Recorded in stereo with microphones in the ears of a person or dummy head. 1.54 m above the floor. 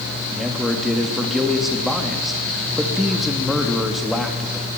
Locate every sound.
0.3 s a man speaking: centre (ahead or behind), 3 m